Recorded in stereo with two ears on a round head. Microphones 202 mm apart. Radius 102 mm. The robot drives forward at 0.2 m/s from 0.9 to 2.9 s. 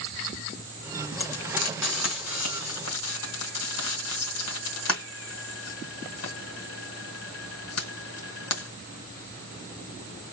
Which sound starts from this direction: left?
Frying, at 1.2 s.